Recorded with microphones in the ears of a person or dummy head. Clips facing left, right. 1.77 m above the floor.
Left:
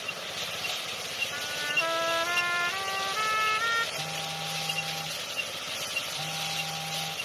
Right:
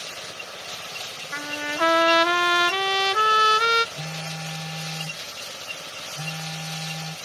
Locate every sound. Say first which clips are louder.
1.3 s a trumpet: right 10 dB; 80° right
4.0 s a phone buzzing: right 2 dB; 30° right (ahead or behind)